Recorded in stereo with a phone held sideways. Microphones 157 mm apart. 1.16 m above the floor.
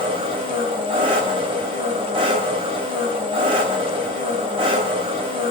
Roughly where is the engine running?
Right.